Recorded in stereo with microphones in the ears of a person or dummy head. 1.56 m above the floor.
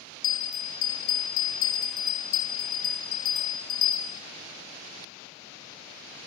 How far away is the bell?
About 2 m.